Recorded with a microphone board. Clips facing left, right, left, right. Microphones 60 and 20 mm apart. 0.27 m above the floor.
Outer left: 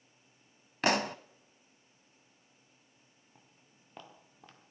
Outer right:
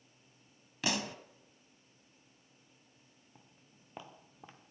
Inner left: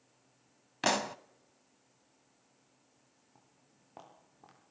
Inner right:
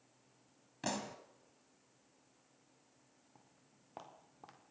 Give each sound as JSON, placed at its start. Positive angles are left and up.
{"t": 0.8, "sound": "a pop", "side_deg": 50, "distance_m": 0.6}
{"t": 3.4, "sound": "footsteps", "side_deg": -5, "distance_m": 4.0}